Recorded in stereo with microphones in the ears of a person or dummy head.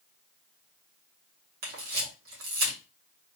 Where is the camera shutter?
65° right (ahead or behind), 1.8 m.